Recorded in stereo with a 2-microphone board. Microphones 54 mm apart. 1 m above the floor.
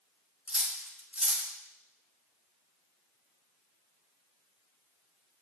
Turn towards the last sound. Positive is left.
turn(degrees=-25)  # may be behind; listen again after turning